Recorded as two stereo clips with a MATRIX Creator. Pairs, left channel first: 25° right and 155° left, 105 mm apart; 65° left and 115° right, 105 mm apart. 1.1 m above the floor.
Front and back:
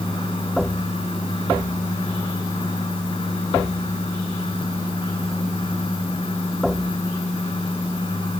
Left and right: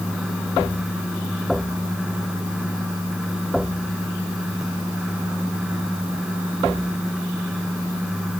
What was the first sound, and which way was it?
Only background noise.